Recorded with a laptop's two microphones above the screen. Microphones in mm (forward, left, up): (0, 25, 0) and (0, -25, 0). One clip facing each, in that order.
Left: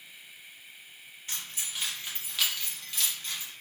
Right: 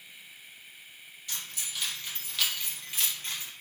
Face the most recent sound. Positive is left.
turn(degrees=-50)  # may be behind; listen again after turning